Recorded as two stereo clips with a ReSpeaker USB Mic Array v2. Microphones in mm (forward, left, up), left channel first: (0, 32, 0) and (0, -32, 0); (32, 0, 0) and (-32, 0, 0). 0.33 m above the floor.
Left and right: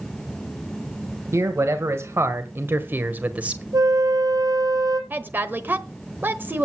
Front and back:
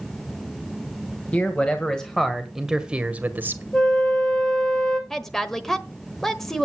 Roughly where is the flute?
Right.